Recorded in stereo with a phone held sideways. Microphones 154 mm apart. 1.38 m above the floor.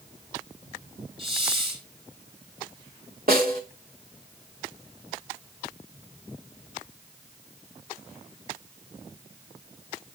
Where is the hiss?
35° right (ahead or behind), 8 m.